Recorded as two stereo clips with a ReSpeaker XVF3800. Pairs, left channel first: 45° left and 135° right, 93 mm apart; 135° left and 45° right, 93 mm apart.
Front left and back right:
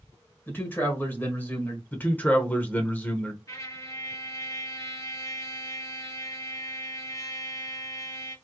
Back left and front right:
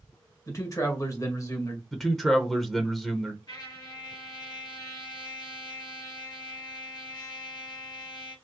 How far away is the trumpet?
About 2 m.